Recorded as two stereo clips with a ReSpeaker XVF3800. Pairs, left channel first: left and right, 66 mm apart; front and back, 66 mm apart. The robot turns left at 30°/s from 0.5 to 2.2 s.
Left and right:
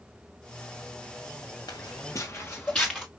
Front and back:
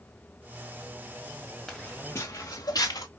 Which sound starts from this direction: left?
Footsteps, at 1.7 s.